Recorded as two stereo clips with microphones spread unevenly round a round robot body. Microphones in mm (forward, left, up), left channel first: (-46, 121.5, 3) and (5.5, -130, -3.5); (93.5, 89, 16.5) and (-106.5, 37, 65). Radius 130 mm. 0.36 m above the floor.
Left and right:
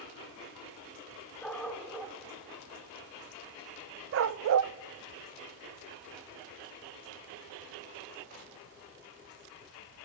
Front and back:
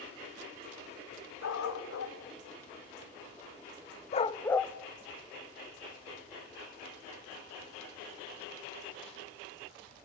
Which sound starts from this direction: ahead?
A dog barking, at 1.4 s.